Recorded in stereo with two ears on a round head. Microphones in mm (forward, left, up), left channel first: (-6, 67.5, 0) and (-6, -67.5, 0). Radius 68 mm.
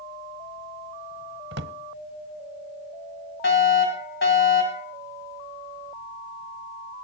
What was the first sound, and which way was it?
A drawer, 75° right (ahead or behind).